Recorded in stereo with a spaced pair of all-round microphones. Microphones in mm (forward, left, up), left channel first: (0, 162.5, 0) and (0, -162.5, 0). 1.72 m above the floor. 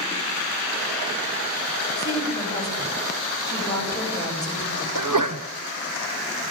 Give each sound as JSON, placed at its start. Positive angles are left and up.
{"t": 2.0, "sound": "a woman speaking", "side_deg": 10, "distance_m": 9.0}
{"t": 5.0, "sound": "a sneeze", "side_deg": -70, "distance_m": 1.3}